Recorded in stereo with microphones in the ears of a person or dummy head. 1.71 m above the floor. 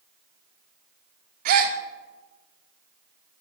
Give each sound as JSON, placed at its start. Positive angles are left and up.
{"t": 1.4, "sound": "a gasp", "side_deg": -55, "distance_m": 0.6}